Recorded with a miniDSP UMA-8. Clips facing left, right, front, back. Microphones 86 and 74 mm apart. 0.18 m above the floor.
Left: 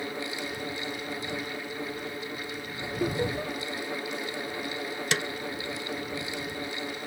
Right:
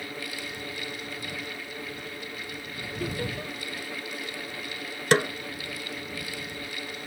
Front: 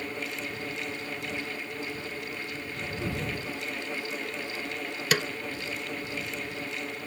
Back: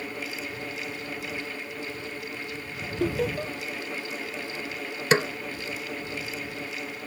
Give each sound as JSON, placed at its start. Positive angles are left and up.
{"t": 3.0, "sound": "laughter", "azimuth_deg": 160}
{"t": 5.1, "sound": "a snare drum", "azimuth_deg": -125}